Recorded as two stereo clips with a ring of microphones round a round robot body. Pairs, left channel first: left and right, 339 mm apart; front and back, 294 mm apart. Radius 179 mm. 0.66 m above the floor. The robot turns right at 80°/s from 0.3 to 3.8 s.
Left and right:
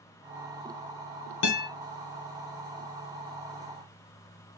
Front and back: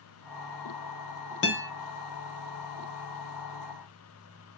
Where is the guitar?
50° left, 0.7 m; by 1.7 s 70° left, 0.7 m.